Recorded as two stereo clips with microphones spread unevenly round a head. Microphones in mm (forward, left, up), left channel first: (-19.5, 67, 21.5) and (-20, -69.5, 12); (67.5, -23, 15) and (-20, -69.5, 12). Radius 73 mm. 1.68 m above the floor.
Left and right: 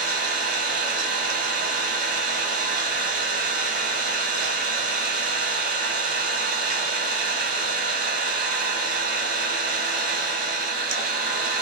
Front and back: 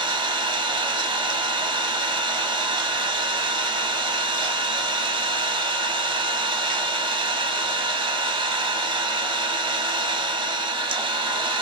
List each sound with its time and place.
0.0 s an engine running: 115° right, 0.9 m